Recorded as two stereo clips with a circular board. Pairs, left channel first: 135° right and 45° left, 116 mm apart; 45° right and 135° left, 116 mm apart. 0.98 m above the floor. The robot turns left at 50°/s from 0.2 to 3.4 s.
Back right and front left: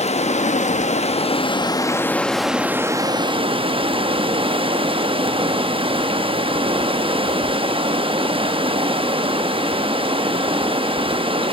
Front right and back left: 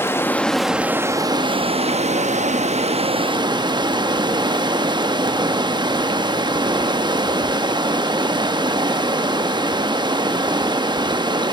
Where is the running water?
115° right, 0.8 m; by 11.5 s 85° left, 0.8 m.